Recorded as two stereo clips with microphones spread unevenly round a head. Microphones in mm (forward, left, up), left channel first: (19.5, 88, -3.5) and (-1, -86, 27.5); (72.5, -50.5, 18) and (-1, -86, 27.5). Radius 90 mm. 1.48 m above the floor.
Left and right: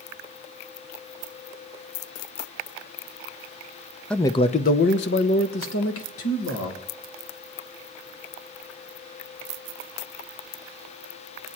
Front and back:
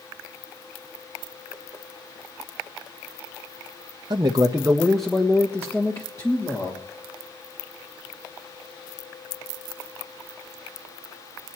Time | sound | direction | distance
4.1 | a man speaking | 175° left | 0.6 m